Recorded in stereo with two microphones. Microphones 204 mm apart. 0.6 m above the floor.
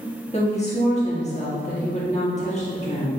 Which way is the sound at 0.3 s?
35° left (ahead or behind).